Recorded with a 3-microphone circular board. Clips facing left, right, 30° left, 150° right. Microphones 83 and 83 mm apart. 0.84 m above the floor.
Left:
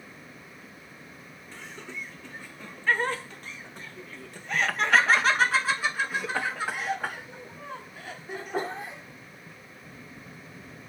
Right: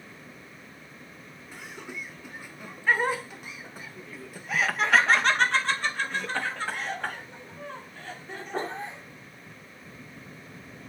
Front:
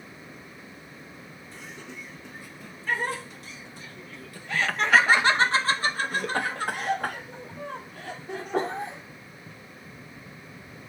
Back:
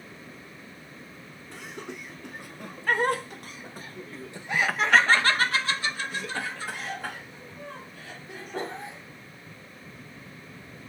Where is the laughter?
165° right, 2 m; by 9.6 s 10° left, 3 m.